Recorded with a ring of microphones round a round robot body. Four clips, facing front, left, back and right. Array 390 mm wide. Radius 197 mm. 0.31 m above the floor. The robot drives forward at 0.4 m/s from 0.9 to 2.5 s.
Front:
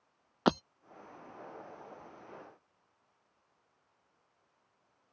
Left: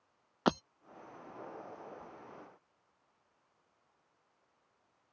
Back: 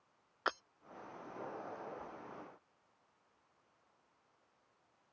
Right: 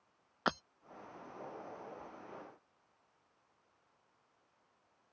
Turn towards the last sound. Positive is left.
turn(degrees=35)